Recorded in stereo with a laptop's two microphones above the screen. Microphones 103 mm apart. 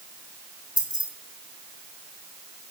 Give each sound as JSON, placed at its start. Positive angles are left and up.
{"t": 0.8, "sound": "keys jangling", "side_deg": 45, "distance_m": 2.0}